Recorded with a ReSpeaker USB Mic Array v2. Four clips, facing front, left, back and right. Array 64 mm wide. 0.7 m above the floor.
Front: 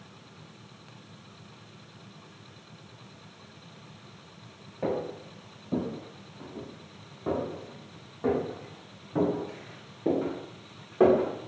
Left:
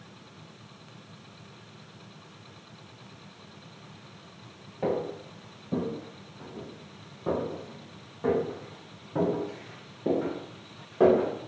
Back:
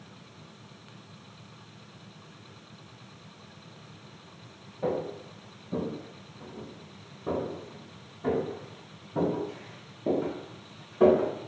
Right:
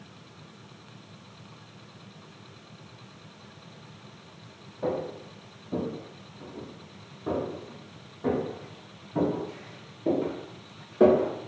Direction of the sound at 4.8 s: 40° left.